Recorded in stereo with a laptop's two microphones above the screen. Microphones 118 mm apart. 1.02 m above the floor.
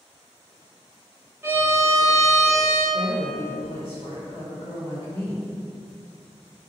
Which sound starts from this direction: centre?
A violin, at 1.4 s.